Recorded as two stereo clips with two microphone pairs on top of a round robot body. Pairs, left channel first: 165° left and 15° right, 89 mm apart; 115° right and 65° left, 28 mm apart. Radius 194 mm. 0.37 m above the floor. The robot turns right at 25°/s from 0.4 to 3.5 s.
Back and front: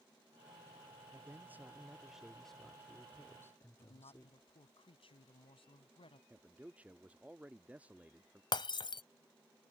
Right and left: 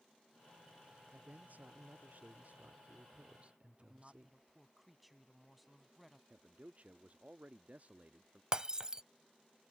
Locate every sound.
1.1 s a man speaking: 45° left; by 4.5 s 105° left
3.8 s a woman speaking: 150° left
6.3 s a man speaking: 60° left
8.5 s breaking glass: 130° left